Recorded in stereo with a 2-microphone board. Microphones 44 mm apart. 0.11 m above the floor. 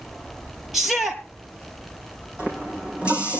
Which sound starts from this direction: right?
A running tap, at 2.4 s.